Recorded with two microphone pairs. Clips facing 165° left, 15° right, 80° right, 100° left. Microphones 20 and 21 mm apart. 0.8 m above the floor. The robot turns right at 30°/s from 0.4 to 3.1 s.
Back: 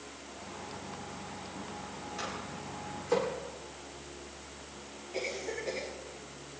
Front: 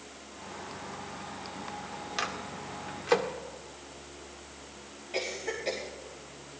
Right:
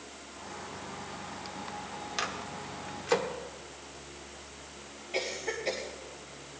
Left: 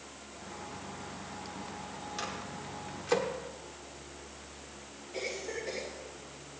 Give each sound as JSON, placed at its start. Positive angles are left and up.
{"t": 2.2, "sound": "a microwave", "azimuth_deg": -25, "distance_m": 1.5}
{"t": 5.1, "sound": "a cough", "azimuth_deg": -50, "distance_m": 4.0}